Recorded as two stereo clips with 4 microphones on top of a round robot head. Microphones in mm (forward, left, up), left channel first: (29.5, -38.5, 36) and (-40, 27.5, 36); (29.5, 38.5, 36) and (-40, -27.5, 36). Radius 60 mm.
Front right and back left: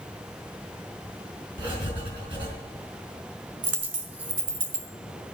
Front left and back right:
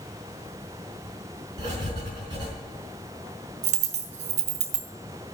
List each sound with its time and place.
1.6 s writing: 175° left, 4 m
3.6 s a dropped coin: 150° right, 1.5 m